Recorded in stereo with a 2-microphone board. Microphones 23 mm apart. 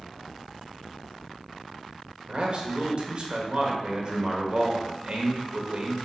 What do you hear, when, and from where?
2.3 s a man speaking: 40° right (ahead or behind), 1.3 m